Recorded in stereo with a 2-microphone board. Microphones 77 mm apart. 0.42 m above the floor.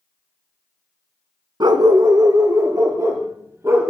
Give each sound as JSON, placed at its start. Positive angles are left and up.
{"t": 1.6, "sound": "a dog barking", "side_deg": -65, "distance_m": 1.4}